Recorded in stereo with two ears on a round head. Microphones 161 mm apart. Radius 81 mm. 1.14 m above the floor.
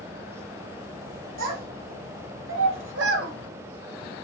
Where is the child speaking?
50° right (ahead or behind), 1.1 m.